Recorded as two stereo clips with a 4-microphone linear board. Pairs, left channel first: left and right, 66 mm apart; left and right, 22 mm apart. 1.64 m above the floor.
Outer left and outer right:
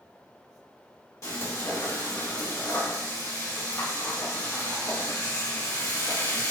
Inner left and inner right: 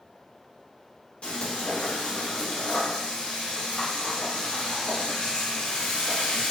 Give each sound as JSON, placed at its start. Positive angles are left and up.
{"t": 1.2, "sound": "frying", "side_deg": 55, "distance_m": 1.7}